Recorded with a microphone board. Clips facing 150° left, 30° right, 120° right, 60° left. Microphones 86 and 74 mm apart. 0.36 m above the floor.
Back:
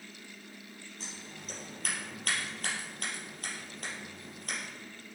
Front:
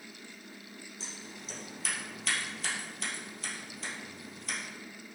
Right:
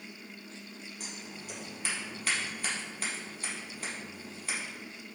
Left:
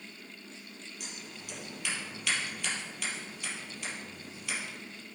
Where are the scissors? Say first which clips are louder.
Back 1 dB, right 2 dB; 175° right, 3.5 m.